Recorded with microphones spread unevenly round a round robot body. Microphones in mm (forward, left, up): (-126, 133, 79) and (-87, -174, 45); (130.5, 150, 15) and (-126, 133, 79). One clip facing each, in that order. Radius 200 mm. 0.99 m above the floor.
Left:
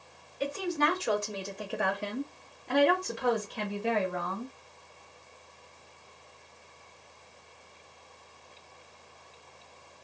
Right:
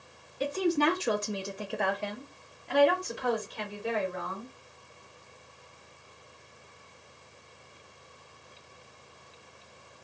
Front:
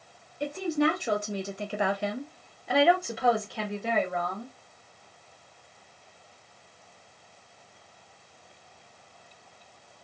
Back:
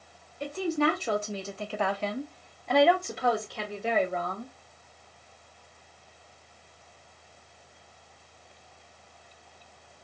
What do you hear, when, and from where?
0.4 s a woman speaking: 60° right, 0.9 m; by 4.5 s 90° left, 1.5 m